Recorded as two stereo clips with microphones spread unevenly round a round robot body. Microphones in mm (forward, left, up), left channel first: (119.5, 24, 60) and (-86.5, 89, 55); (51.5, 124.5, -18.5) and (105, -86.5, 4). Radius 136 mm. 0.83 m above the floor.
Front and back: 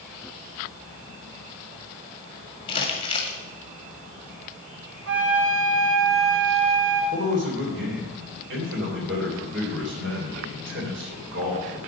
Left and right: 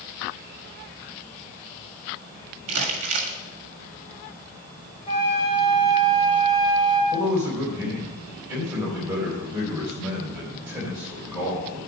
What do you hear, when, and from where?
2.7 s crumpling: 85° right, 1.7 m
5.1 s a flute: 170° left, 2.5 m
7.1 s a man speaking: 155° right, 3.5 m